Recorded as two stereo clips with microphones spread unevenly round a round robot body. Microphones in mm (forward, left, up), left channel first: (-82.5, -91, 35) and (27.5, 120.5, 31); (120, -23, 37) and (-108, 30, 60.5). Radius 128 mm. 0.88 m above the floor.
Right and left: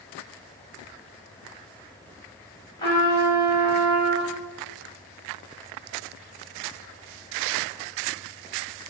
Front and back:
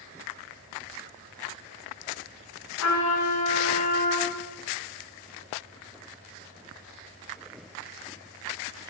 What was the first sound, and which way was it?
A trumpet, 45° right.